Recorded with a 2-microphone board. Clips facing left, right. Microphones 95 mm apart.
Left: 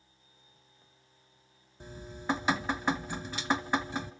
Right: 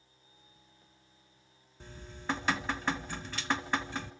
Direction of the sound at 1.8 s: 15° left (ahead or behind).